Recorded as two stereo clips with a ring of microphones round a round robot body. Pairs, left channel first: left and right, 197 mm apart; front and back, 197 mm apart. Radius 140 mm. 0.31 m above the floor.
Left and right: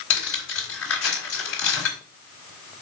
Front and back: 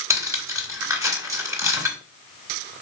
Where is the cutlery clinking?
105° left, 2.5 m.